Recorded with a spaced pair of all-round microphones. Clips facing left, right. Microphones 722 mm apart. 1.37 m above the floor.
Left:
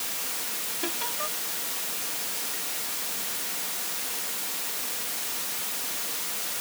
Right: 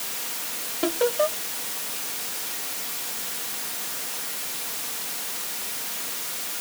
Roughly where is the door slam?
No door slam in this recording.